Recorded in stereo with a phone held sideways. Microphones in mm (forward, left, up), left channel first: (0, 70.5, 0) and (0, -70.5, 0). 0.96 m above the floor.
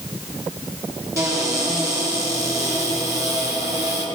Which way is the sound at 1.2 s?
25° right (ahead or behind).